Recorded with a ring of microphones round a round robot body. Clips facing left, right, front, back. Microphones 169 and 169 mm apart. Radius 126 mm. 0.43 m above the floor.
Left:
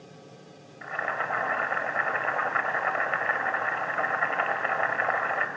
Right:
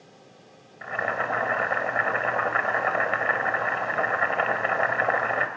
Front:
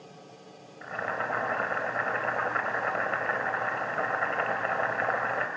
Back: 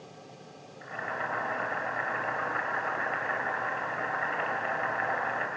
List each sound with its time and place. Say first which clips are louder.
0.8 s boiling: right 4 dB, front 3 dB; 45° right, 1.8 m